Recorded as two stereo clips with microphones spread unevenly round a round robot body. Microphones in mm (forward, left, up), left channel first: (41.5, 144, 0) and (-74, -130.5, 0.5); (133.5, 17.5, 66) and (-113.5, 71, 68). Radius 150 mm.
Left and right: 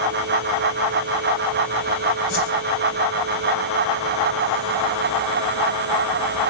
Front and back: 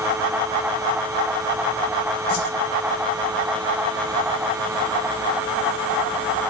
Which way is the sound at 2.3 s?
15° left.